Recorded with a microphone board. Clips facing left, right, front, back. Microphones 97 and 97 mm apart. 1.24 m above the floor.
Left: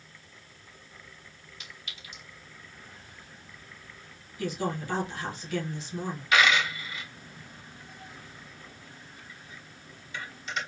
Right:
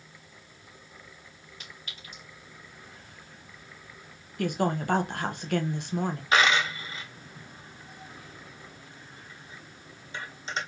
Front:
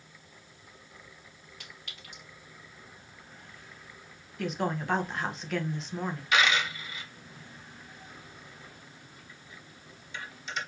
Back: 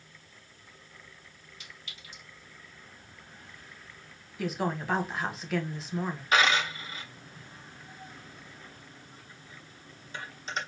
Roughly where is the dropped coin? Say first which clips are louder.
Even, back 2 dB; behind right.